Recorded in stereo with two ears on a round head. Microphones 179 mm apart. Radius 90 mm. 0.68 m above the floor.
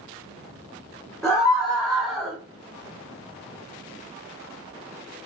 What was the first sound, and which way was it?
A scream, centre (ahead or behind).